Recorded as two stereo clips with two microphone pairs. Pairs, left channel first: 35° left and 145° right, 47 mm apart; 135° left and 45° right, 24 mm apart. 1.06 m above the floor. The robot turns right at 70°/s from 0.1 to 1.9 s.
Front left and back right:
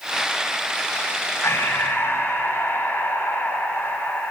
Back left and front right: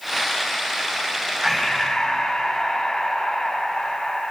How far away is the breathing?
About 5 m.